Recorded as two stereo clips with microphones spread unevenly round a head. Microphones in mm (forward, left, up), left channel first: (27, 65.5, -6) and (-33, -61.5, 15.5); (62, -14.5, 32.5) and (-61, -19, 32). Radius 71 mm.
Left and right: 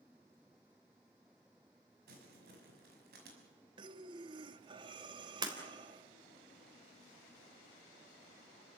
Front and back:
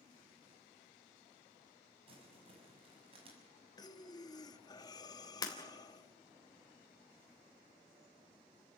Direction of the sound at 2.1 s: 130° right.